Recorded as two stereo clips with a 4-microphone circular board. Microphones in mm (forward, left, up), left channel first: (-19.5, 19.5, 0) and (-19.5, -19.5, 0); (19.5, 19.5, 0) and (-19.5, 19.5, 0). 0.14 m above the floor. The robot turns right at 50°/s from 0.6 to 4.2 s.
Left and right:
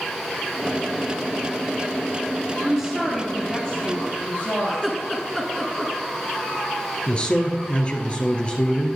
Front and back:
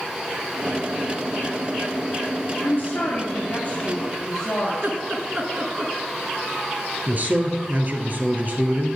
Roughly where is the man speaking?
Behind left.